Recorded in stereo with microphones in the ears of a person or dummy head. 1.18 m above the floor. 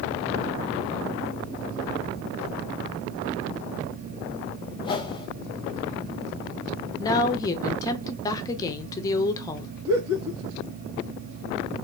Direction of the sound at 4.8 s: 25° left (ahead or behind).